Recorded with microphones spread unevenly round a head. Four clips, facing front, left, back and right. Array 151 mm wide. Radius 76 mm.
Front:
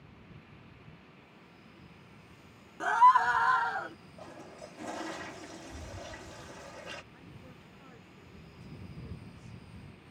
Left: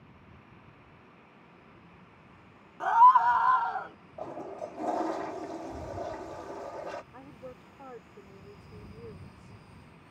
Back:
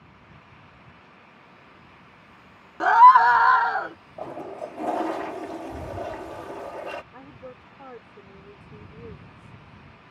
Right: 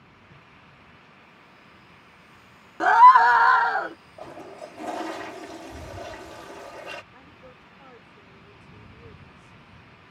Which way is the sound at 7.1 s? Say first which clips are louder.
Left 3 dB, back 10 dB; 160° left.